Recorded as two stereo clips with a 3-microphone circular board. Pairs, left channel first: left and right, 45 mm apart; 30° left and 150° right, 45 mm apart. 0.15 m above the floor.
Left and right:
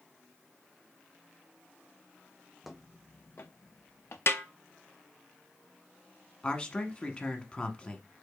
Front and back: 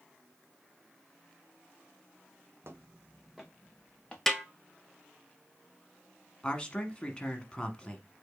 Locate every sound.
2.6 s footsteps: 175° right, 0.6 m; by 4.2 s 100° left, 1.3 m
4.3 s a snare drum: 115° left, 0.6 m
6.4 s a man speaking: 65° left, 1.1 m